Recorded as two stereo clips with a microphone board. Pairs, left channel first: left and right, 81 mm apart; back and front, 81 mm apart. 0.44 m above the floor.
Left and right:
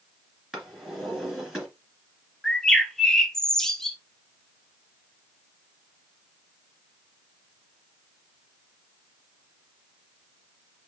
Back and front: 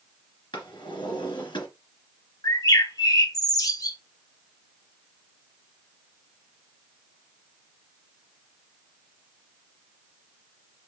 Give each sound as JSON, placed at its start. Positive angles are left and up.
{"t": 0.5, "sound": "a drawer", "azimuth_deg": -175, "distance_m": 2.5}
{"t": 2.4, "sound": "a bird", "azimuth_deg": 170, "distance_m": 0.6}